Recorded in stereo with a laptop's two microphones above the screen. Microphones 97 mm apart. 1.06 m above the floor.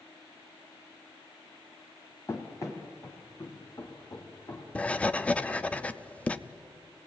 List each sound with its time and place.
2.3 s running footsteps: 30° left (ahead or behind), 1.7 m; by 5.7 s 40° left (ahead or behind), 5 m
4.8 s writing: 15° left (ahead or behind), 0.5 m